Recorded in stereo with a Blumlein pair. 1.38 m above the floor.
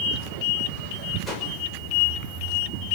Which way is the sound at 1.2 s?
5° left.